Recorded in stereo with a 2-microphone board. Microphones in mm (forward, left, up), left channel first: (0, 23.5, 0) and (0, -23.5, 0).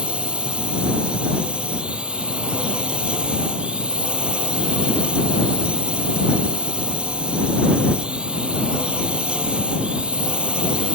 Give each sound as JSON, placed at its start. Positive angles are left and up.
{"t": 0.0, "sound": "a drone", "side_deg": -20}